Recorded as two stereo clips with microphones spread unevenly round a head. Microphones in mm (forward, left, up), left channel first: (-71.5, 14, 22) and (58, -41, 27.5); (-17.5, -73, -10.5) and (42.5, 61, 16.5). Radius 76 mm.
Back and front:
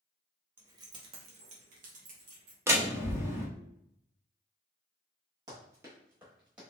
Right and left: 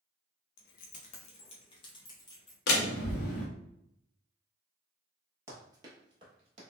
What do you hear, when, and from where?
0.6 s keys jangling: 95° right, 0.7 m; by 2.6 s 45° right, 1.6 m
2.7 s a door slam: 95° right, 1.1 m
5.5 s running footsteps: 25° left, 1.4 m; by 6.6 s 55° left, 1.7 m